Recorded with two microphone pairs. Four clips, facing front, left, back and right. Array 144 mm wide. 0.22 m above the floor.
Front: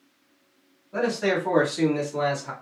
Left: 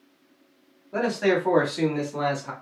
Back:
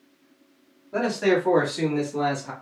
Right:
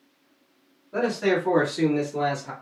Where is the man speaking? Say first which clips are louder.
Even, back 2 dB; 145° left, 1.3 m; by 2.5 s 60° left, 1.6 m.